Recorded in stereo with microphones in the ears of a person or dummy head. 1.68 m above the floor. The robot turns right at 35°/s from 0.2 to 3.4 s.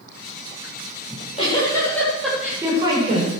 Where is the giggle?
135° left, 8 m; by 3.3 s 145° right, 8 m.